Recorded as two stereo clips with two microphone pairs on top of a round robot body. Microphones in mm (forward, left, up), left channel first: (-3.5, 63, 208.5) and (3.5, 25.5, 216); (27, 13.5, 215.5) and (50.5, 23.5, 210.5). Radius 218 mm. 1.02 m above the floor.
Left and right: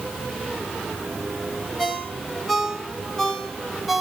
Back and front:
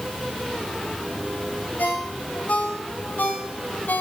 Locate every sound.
1.8 s a ringtone: 170° right, 1.3 m